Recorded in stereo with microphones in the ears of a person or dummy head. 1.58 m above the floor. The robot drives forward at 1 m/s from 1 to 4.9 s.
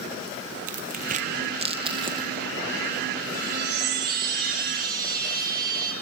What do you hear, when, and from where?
0.7 s tearing paper: 45° right (ahead or behind), 1.1 m; by 2.3 s 20° right (ahead or behind), 2.5 m
3.3 s a chime: 60° right (ahead or behind), 4 m; by 5.9 s 45° right (ahead or behind), 5 m